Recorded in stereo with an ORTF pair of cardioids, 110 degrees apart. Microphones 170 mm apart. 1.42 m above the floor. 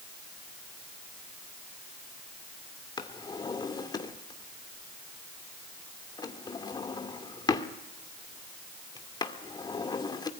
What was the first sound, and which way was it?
A drawer, 25° left.